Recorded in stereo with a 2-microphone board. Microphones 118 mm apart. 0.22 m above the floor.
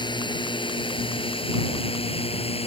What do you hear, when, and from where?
0.0 s a drone: 40° left (ahead or behind); by 2.7 s 55° left (ahead or behind)